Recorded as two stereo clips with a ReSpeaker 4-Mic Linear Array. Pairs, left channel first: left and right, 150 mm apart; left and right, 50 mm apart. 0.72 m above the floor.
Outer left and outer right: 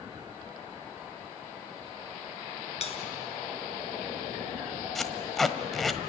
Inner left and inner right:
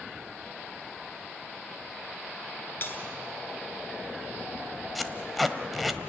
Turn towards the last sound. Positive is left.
turn(degrees=0)  # may be behind; listen again after turning